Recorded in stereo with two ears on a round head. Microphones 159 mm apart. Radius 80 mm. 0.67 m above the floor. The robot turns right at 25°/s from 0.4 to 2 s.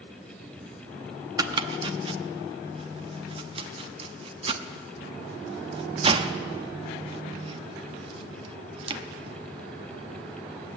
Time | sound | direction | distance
1.4 | chopping | 20° right (ahead or behind) | 0.7 m